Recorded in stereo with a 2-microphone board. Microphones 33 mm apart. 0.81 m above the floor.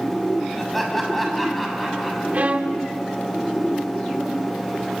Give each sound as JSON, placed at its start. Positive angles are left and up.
{"t": 0.6, "sound": "laughter", "side_deg": 5, "distance_m": 6.0}
{"t": 2.3, "sound": "a violin", "side_deg": -50, "distance_m": 1.1}